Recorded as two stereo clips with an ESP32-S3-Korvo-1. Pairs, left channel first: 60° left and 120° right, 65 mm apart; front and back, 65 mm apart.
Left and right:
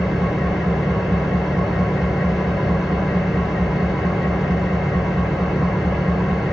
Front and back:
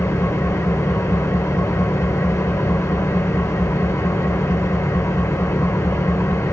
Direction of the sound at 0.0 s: 30° right.